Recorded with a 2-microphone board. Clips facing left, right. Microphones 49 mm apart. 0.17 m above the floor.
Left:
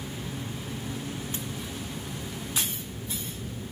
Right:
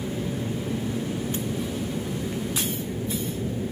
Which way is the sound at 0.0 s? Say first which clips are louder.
Right 7 dB; 40° right (ahead or behind).